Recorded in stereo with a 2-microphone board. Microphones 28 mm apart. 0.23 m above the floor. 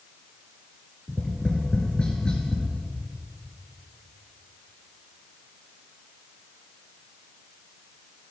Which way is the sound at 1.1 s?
30° left (ahead or behind).